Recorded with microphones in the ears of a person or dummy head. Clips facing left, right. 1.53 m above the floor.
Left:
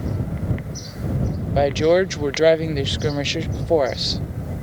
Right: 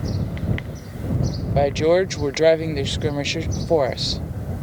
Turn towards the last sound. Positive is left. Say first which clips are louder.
# left 1 dB
turn(degrees=5)  # may be behind; listen again after turning